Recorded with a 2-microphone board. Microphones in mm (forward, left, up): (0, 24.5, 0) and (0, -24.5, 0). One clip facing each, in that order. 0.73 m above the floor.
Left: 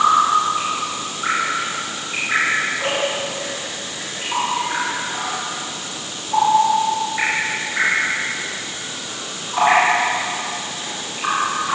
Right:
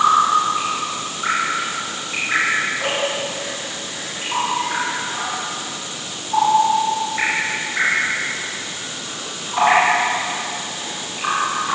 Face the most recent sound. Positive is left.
No sound to turn to.